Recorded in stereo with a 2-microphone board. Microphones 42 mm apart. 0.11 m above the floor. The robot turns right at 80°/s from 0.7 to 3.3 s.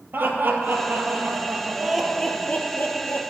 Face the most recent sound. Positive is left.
turn(degrees=100)